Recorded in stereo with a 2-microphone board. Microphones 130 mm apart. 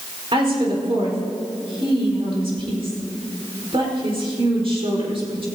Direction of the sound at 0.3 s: 45° right (ahead or behind).